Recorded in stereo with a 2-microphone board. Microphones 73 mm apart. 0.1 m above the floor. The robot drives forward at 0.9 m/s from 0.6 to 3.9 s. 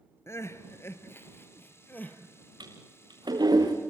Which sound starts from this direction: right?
A toilet flushing, at 2.6 s.